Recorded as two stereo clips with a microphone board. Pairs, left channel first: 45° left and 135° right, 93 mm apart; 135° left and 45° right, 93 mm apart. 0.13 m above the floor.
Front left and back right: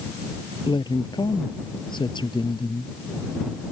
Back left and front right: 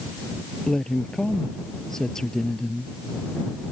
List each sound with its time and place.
0.7 s a woman speaking: 50° left